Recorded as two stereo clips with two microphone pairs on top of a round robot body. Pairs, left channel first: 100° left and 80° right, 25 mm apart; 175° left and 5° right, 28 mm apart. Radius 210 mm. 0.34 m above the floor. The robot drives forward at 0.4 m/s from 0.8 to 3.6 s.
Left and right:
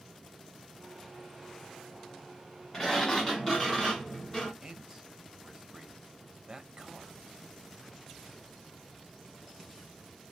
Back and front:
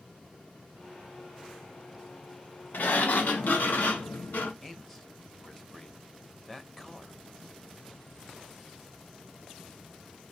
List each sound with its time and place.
2.7 s a sliding door: 175° left, 0.6 m
4.6 s a man speaking: 130° right, 1.1 m